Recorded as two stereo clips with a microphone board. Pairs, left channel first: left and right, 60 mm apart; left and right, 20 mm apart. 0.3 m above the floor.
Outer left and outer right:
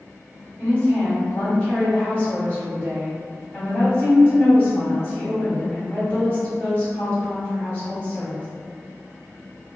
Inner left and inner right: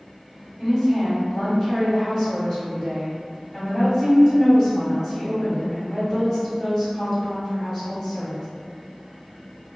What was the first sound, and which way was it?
A woman speaking, 30° left (ahead or behind).